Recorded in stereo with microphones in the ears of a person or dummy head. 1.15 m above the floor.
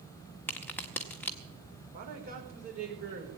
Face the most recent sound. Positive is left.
turn(degrees=-45)  # may be behind; listen again after turning